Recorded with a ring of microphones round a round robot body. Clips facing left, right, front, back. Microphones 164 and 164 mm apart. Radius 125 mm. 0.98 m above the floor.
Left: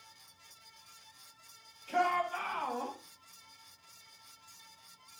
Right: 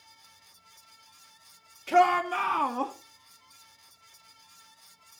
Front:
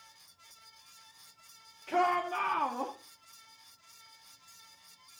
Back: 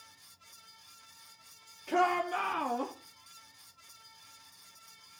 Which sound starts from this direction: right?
A shout, at 1.9 s.